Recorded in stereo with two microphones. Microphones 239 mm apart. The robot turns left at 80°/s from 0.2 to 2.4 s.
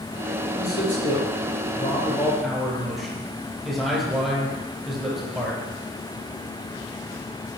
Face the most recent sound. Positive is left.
turn(degrees=0)